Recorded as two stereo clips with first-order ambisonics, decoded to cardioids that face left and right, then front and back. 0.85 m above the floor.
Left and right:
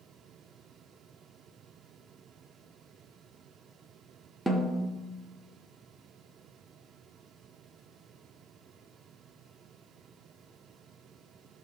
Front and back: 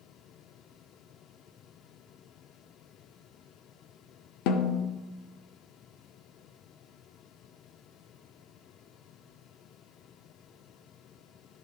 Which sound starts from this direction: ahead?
A snare drum, at 4.5 s.